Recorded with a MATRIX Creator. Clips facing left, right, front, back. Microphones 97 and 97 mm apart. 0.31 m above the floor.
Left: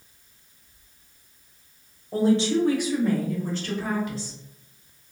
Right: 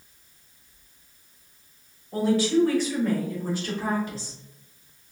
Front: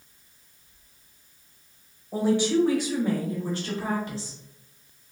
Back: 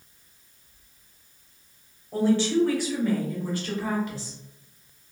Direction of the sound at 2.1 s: 70° left.